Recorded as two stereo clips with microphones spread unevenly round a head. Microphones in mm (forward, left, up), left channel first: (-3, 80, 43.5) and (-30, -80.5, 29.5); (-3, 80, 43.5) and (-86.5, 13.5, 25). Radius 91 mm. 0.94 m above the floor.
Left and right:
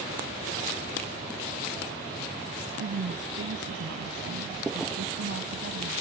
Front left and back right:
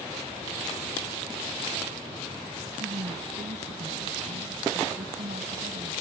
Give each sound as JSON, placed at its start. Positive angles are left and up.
{"t": 2.8, "sound": "a woman speaking", "azimuth_deg": -100}